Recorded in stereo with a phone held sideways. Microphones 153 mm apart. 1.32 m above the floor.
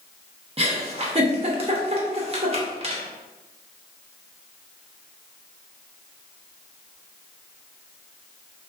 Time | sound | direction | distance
0.6 | a giggle | 40° right (ahead or behind) | 0.6 m